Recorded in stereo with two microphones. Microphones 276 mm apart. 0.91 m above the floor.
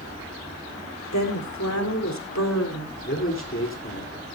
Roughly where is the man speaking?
Left.